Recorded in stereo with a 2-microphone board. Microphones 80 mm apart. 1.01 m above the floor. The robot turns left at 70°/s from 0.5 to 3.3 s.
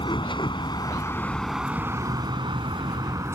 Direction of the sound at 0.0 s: 85° left.